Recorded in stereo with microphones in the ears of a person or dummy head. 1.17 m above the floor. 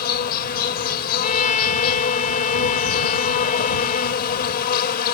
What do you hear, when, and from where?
0.0 s an insect: 50° left (ahead or behind)
1.2 s a trumpet: 40° left (ahead or behind)